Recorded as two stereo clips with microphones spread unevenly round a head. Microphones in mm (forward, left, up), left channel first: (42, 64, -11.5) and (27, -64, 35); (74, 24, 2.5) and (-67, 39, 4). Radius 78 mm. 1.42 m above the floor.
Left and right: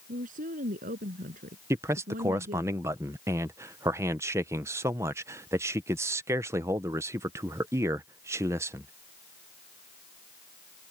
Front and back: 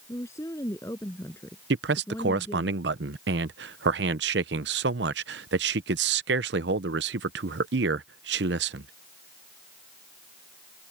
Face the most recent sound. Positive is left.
turn(degrees=-170)